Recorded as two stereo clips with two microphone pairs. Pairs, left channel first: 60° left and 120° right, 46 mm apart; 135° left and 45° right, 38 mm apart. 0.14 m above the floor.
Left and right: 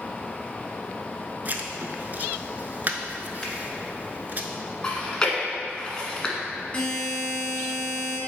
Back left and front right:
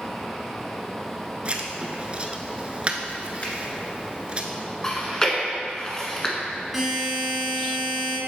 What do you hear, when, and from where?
1.4 s writing: 90° right, 0.6 m
3.4 s a finger snap: 130° left, 1.6 m
4.8 s chewing: 100° left, 1.2 m
6.7 s a buzzer: 30° left, 1.6 m